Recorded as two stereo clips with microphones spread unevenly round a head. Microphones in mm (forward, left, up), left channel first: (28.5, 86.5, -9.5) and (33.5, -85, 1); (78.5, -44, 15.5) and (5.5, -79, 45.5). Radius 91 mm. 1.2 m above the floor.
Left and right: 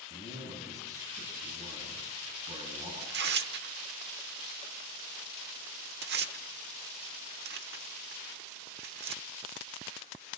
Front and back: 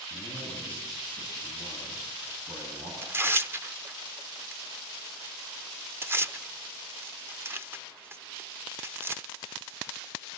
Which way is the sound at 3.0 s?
80° right.